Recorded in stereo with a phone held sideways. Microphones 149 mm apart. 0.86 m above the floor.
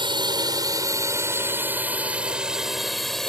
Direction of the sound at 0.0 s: 35° right (ahead or behind).